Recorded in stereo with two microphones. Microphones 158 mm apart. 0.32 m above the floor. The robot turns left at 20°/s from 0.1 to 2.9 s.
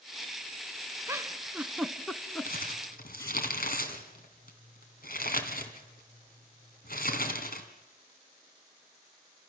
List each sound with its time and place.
1.1 s a giggle: 20° right (ahead or behind), 1.1 m; by 3.4 s 20° left (ahead or behind), 1.1 m
2.5 s crumpling: 70° left (ahead or behind), 2.5 m